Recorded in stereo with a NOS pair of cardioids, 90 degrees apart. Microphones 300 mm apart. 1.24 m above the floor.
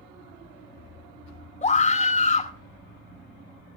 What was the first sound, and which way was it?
A scream, 25° left.